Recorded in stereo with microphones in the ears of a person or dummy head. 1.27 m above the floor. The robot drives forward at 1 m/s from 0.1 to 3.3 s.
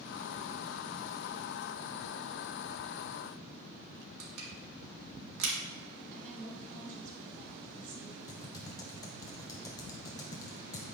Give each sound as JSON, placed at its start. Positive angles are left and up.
{"t": 4.2, "sound": "crushing", "side_deg": -70, "distance_m": 1.8}
{"t": 6.1, "sound": "a woman speaking", "side_deg": -45, "distance_m": 3.0}
{"t": 8.3, "sound": "typing on a keyboard", "side_deg": 20, "distance_m": 0.7}